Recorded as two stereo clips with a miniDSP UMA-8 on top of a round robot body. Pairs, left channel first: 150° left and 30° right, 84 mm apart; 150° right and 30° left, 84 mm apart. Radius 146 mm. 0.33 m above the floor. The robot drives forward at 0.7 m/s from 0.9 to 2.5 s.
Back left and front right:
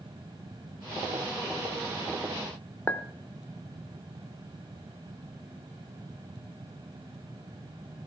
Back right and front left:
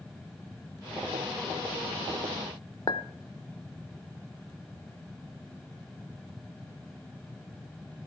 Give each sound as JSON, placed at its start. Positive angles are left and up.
{"t": 2.9, "sound": "a clink", "azimuth_deg": -145, "distance_m": 1.0}